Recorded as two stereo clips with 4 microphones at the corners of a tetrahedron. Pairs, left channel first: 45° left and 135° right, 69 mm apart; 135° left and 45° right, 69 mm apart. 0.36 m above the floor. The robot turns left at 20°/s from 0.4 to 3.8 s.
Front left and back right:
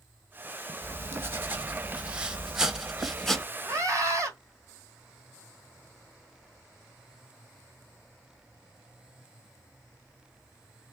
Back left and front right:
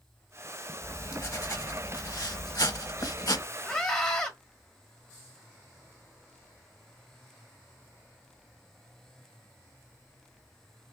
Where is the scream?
145° right, 1.4 m.